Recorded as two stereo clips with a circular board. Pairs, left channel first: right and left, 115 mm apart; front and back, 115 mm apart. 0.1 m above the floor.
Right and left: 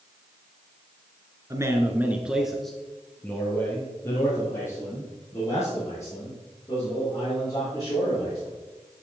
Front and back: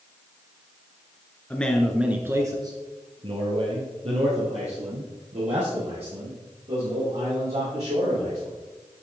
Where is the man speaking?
65° left, 1.6 m; by 8.5 s 155° right, 8 m.